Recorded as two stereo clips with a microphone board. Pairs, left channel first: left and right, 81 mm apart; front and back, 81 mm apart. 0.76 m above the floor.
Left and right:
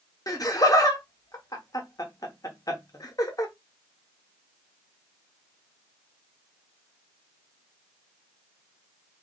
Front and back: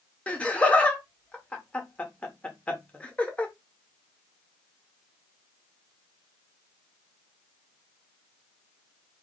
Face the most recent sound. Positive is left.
turn(degrees=70)